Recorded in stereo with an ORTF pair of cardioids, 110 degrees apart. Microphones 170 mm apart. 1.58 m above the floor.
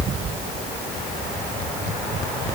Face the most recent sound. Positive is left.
No sound to turn to.